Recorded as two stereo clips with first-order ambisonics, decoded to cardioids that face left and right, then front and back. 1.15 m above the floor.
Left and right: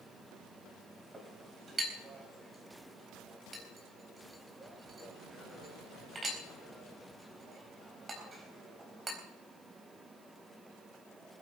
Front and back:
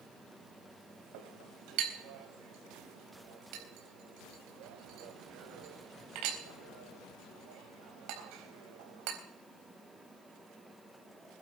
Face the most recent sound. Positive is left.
turn(degrees=-165)